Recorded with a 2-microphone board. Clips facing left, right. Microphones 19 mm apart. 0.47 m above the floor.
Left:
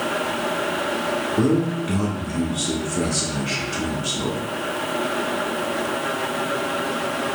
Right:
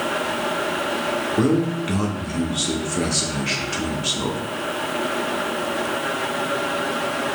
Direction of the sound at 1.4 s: 20° right (ahead or behind).